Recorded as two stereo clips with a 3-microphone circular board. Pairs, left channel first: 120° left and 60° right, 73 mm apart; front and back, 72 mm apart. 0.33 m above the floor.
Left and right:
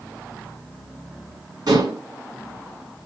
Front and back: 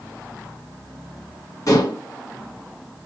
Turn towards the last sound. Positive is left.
turn(degrees=-40)